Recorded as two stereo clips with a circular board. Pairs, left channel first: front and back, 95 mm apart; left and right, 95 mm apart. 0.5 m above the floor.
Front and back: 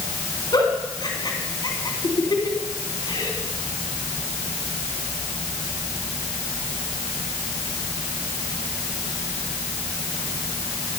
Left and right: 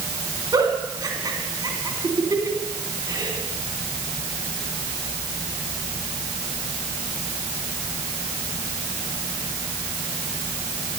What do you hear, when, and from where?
0.5 s a giggle: 45° right, 3 m